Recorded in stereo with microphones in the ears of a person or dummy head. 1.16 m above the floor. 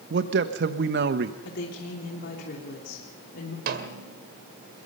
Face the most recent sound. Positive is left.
turn(degrees=-60)  # may be behind; listen again after turning